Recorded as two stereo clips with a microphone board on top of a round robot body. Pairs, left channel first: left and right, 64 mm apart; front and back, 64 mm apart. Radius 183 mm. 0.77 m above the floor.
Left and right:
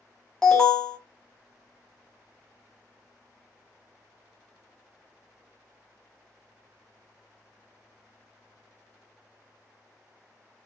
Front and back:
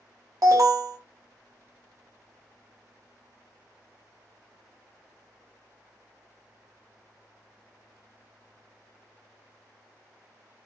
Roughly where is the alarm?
Behind.